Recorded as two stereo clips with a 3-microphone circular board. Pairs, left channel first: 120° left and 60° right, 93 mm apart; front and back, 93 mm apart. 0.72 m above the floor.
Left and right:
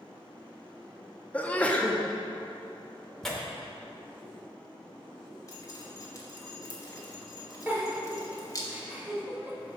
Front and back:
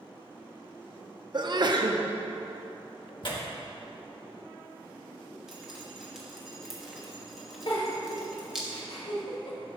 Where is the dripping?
95° left, 1.1 m.